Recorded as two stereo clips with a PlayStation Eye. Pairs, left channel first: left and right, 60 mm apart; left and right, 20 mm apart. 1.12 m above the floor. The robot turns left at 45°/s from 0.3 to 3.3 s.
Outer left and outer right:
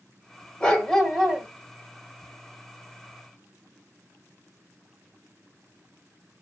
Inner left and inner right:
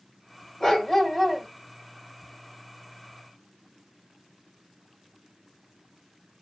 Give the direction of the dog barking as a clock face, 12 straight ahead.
11 o'clock.